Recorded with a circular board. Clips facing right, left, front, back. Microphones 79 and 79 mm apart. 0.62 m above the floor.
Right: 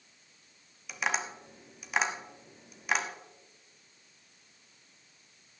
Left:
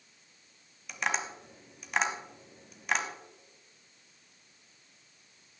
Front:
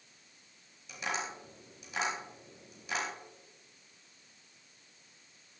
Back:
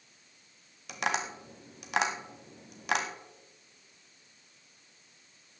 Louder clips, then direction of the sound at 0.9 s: Even, back 5 dB; straight behind.